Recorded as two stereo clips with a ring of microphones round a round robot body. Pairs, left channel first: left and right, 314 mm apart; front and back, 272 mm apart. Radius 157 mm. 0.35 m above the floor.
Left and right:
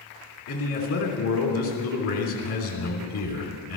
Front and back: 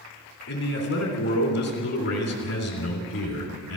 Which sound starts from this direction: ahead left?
A man speaking, at 0.5 s.